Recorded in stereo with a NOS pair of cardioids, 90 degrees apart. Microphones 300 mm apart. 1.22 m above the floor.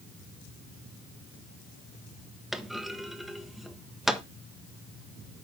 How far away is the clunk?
About 1.3 m.